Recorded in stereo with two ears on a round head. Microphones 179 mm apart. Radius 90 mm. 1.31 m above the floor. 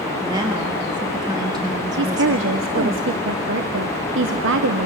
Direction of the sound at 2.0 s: 65° right (ahead or behind).